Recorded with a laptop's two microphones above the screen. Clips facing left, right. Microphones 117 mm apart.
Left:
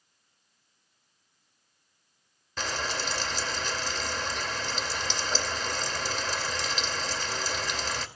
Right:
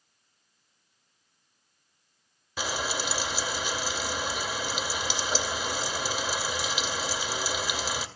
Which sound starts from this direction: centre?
Frying, at 2.6 s.